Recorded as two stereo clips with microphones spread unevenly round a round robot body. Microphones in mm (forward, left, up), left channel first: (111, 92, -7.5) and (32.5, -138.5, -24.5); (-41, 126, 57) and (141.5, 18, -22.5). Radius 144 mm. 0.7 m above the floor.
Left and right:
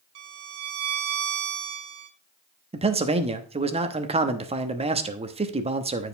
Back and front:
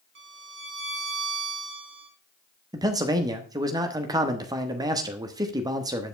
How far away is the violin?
About 1.5 m.